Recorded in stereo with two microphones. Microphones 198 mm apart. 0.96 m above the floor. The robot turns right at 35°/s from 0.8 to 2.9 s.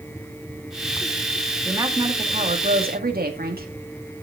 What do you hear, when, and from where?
1.6 s a woman speaking: 170° right, 1.9 m; by 3.7 s 125° right, 1.9 m